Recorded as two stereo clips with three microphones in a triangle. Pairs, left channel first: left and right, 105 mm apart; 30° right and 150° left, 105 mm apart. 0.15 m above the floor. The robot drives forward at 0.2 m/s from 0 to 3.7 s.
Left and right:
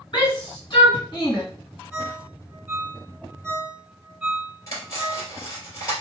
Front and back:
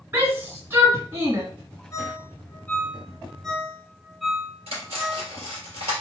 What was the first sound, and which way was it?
A shout, 95° left.